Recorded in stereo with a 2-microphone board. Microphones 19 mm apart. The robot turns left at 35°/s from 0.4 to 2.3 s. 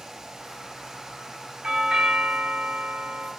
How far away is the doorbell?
About 2.5 m.